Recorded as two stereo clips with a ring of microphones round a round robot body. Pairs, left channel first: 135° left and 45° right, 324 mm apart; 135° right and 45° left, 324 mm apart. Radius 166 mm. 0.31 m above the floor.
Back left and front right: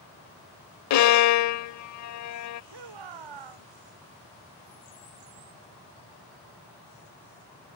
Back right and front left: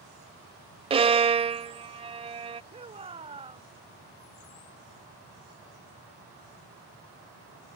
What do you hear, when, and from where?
0.9 s a violin: 115° left
2.7 s a shout: 30° right